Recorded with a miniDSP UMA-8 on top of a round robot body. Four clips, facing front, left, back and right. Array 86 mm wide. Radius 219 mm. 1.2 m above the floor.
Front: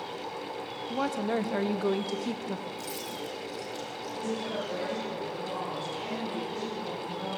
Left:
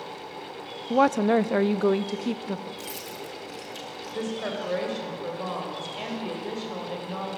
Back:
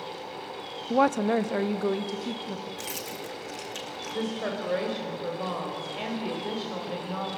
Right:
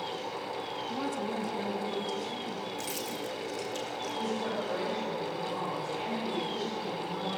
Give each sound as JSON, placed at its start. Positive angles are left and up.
{"t": 0.9, "sound": "a woman speaking", "azimuth_deg": 130, "distance_m": 0.7}
{"t": 2.8, "sound": "keys jangling", "azimuth_deg": 175, "distance_m": 2.0}
{"t": 4.1, "sound": "a woman speaking", "azimuth_deg": 140, "distance_m": 7.0}